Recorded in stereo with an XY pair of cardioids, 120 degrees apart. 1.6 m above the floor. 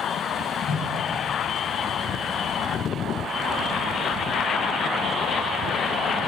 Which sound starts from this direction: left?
A whoosh, at 0.7 s.